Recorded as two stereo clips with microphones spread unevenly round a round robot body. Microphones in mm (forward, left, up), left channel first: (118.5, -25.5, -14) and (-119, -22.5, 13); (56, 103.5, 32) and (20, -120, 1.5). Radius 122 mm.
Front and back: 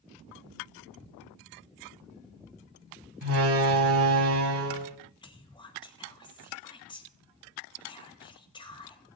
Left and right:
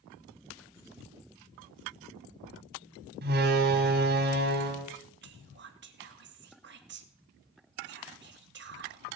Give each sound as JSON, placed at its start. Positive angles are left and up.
{"t": 3.2, "sound": "a door slam", "azimuth_deg": -155, "distance_m": 2.0}
{"t": 5.2, "sound": "whispering", "azimuth_deg": -65, "distance_m": 2.0}